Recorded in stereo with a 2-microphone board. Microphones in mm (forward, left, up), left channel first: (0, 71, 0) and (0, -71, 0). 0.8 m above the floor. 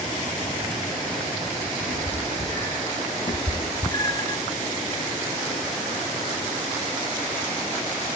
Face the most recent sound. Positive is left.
turn(degrees=30)  # may be behind; listen again after turning